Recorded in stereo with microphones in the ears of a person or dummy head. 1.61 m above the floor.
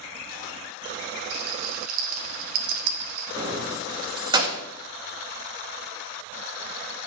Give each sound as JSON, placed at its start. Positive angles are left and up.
{"t": 1.3, "sound": "a rattle", "side_deg": -50, "distance_m": 1.5}
{"t": 3.4, "sound": "keys jangling", "side_deg": -20, "distance_m": 1.8}